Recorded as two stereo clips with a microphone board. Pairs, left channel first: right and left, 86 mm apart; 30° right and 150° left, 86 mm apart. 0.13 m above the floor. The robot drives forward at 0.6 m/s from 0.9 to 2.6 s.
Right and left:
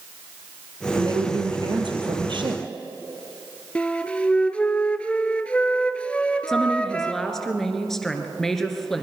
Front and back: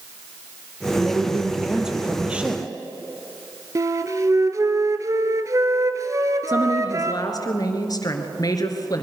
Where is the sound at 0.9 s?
60° left, 3 m; by 2.6 s 80° left, 3 m.